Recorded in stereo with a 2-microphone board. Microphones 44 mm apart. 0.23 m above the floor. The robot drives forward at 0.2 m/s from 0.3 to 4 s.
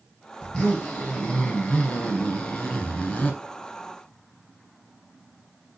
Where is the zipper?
25° left (ahead or behind), 1.7 m; by 3.4 s 35° left (ahead or behind), 1.2 m.